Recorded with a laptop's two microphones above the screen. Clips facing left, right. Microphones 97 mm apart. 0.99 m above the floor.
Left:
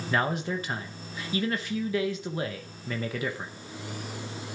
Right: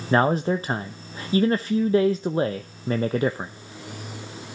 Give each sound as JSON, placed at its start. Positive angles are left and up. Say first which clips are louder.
{"t": 0.1, "sound": "a man speaking", "louder": "right 8 dB", "side_deg": -40, "distance_m": 0.7}